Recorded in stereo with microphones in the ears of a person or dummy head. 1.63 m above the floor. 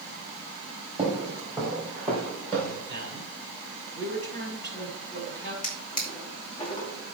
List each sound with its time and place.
1.0 s footsteps: 5° right (ahead or behind), 3.5 m; by 2.8 s 15° left (ahead or behind), 4 m
2.9 s a man speaking: 25° left (ahead or behind), 5 m
5.6 s a drawer: 45° left (ahead or behind), 2.5 m